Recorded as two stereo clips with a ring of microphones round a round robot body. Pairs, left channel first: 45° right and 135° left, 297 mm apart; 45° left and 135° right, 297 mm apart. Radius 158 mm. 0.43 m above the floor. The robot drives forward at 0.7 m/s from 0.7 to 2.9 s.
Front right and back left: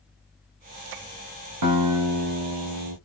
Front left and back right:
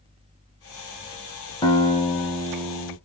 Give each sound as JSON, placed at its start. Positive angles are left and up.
{"t": 1.6, "sound": "a guitar", "azimuth_deg": 120, "distance_m": 2.5}